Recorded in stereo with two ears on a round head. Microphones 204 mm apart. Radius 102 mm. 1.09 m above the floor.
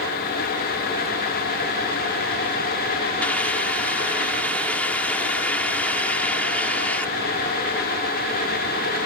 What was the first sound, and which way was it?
A hiss, 5° left (ahead or behind).